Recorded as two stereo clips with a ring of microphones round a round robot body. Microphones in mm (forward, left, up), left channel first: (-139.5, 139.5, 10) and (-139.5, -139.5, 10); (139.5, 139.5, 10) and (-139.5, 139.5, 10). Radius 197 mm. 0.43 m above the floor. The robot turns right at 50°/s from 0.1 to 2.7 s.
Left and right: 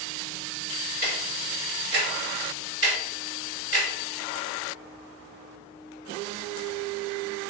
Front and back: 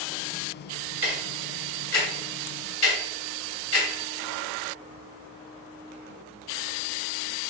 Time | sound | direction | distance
1.0 | ticking | 120° right | 1.4 m